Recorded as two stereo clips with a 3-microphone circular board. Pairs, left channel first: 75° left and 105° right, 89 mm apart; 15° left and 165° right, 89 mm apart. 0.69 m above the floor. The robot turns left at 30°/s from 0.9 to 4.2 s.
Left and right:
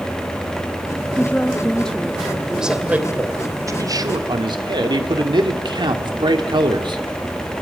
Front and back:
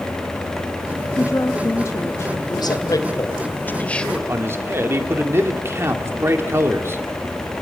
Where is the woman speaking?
20° left, 1.0 m; by 2.4 s 15° right, 1.0 m.